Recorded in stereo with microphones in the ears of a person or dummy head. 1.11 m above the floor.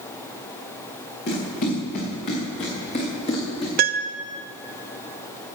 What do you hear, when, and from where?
1.3 s running footsteps: 50° left (ahead or behind), 5 m; by 3.7 s 30° left (ahead or behind), 3.5 m
3.8 s a piano: 45° right (ahead or behind), 0.6 m